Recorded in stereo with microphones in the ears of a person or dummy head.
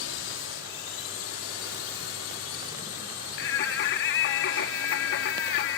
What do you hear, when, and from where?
0.0 s a drone: 60° left (ahead or behind); by 5.8 s 70° left (ahead or behind)
3.4 s singing: 60° left (ahead or behind)